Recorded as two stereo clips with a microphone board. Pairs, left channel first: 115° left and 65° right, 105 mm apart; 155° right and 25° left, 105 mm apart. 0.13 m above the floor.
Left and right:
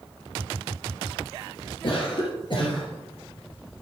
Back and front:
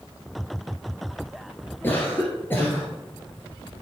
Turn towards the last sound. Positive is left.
turn(degrees=135)